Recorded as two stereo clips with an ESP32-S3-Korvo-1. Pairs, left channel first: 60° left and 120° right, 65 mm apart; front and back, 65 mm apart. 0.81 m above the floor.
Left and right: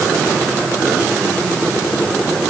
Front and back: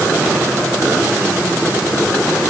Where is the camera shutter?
No camera shutter in this recording.